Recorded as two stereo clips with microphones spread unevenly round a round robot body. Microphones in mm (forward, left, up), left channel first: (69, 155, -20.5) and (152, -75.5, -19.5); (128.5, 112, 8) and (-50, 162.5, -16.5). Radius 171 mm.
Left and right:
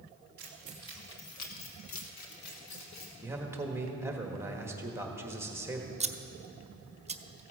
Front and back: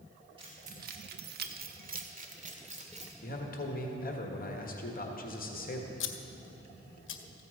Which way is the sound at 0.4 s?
130° right.